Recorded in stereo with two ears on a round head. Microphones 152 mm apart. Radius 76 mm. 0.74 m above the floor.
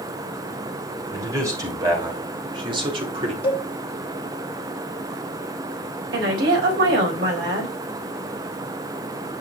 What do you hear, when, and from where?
1.1 s a man speaking: 20° right (ahead or behind), 3 m; by 3.3 s 35° right (ahead or behind), 2 m
3.4 s a cowbell: 30° left (ahead or behind), 1.7 m
6.1 s a woman speaking: 65° right (ahead or behind), 4 m